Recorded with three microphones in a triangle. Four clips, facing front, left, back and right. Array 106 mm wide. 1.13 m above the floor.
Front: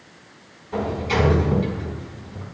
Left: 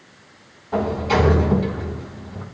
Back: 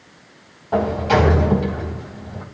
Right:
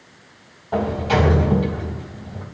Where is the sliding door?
160° right, 2 m.